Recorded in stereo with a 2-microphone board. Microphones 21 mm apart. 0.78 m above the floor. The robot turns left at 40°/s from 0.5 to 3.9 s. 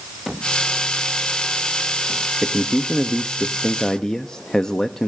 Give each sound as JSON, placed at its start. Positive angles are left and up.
{"t": 2.4, "sound": "a man speaking", "azimuth_deg": 175, "distance_m": 0.7}